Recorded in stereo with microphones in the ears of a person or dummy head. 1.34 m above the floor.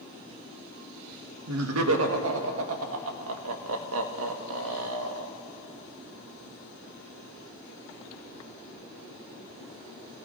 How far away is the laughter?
About 1.5 m.